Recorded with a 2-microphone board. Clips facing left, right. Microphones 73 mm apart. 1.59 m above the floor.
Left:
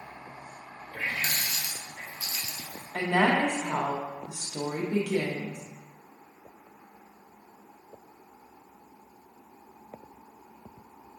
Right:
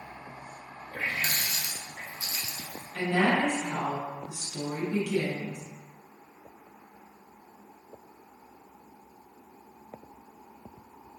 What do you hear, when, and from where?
0.9 s a running tap: 30° right (ahead or behind), 0.7 m
2.9 s a woman speaking: 60° left (ahead or behind), 0.6 m